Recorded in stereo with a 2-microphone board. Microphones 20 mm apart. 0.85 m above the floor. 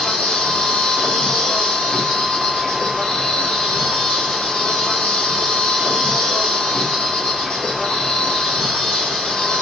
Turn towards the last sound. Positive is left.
turn(degrees=60)  # may be behind; listen again after turning